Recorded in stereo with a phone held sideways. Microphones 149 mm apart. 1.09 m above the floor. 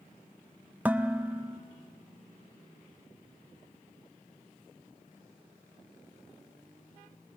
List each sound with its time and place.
0.8 s dishes clattering: 10° right (ahead or behind), 0.7 m